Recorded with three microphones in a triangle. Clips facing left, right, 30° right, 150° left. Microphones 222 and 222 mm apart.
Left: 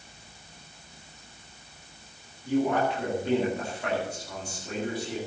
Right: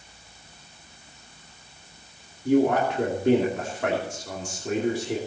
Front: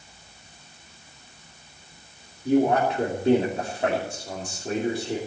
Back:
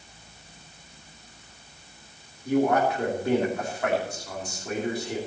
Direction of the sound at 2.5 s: 95° right.